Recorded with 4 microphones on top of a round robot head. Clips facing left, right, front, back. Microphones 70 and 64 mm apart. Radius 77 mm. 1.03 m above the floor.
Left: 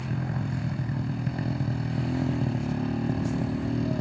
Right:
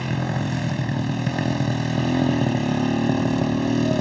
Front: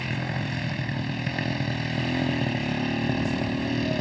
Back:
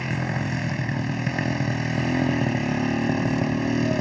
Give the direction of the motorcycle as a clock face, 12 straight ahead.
3 o'clock.